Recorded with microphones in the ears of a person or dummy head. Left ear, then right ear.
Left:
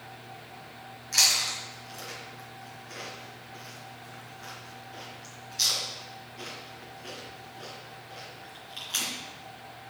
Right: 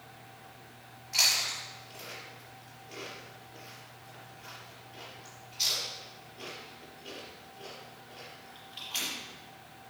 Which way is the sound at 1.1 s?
60° left (ahead or behind).